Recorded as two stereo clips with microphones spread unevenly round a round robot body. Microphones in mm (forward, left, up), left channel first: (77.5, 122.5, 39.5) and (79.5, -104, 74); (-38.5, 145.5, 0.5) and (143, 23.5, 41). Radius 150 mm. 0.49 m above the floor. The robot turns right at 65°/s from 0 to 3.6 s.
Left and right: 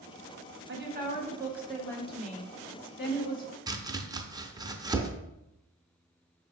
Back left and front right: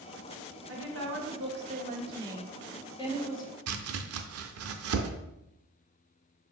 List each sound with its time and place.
0.7 s a woman speaking: 55° right, 1.0 m; by 3.6 s 130° left, 1.0 m
3.7 s chopping: 10° right, 0.5 m